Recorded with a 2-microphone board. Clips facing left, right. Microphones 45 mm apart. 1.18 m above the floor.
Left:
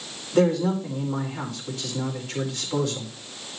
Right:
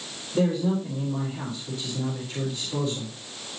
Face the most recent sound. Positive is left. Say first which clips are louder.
# left 3 dB
turn(degrees=80)